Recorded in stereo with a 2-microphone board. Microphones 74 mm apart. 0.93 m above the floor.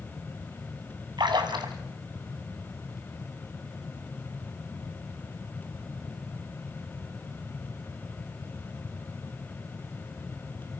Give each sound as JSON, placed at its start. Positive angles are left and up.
{"t": 1.2, "sound": "a splash", "side_deg": -80, "distance_m": 2.5}